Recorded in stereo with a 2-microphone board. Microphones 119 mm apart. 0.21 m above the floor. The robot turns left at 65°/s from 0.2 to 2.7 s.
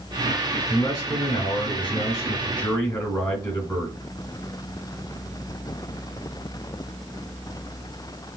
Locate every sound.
0.7 s a man speaking: 140° left, 2.5 m; by 4.0 s 10° left, 2.5 m